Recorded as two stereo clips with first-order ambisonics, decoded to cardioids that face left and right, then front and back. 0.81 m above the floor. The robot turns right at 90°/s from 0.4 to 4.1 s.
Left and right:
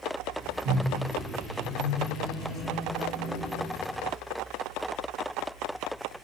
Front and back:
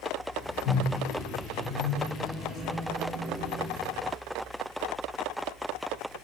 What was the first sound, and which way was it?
A microwave, 50° right.